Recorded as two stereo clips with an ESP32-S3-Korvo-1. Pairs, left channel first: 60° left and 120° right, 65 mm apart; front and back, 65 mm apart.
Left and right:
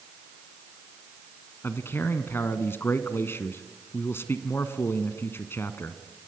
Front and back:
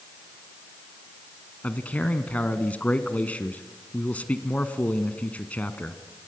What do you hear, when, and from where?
1.6 s a man speaking: 55° left, 1.2 m